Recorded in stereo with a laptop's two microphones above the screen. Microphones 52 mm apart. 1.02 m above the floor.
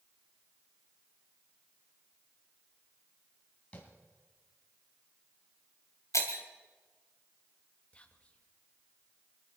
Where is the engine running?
No engine running in this recording.